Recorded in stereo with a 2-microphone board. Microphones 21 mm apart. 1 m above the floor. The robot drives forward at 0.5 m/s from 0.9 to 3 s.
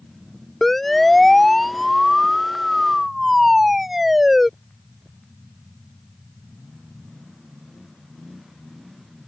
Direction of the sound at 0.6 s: 10° left (ahead or behind).